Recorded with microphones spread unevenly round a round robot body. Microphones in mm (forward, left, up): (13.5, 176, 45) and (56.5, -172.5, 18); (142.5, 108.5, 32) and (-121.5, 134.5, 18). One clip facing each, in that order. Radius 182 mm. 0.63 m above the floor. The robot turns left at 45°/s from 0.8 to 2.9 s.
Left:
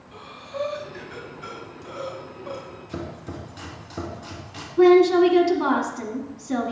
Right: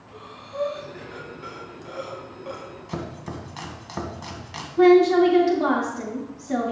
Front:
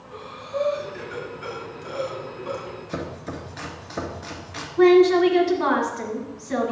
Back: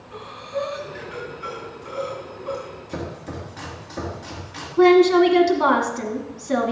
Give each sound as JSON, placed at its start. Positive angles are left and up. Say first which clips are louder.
{"t": 0.1, "sound": "breathing", "louder": "left 1 dB, back 1 dB", "azimuth_deg": 40, "distance_m": 3.0}
{"t": 2.9, "sound": "chopping", "louder": "even, back 1 dB", "azimuth_deg": -90, "distance_m": 1.9}
{"t": 4.8, "sound": "a woman speaking", "louder": "even, back 1 dB", "azimuth_deg": -170, "distance_m": 1.7}